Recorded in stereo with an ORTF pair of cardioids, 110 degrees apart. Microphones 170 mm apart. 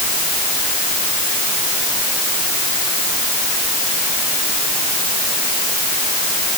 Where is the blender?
I don't hear a blender.